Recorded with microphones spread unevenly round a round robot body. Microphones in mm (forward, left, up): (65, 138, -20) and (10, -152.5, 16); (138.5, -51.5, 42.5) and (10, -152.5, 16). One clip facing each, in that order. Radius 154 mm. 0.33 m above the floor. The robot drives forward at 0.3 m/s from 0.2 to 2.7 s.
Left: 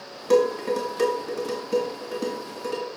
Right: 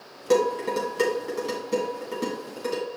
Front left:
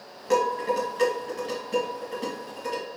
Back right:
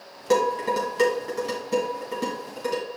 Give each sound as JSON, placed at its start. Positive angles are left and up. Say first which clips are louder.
{"t": 0.3, "sound": "dishes clattering", "louder": "left 2 dB, back right 2 dB", "azimuth_deg": 160, "distance_m": 1.5}